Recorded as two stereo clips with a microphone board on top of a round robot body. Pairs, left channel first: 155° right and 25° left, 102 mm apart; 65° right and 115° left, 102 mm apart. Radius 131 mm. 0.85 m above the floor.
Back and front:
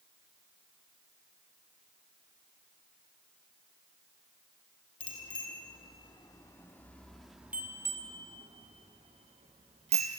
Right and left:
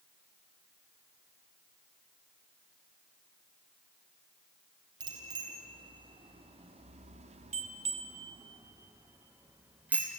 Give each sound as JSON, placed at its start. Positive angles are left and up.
{"t": 5.0, "sound": "a bicycle bell", "azimuth_deg": 160, "distance_m": 3.0}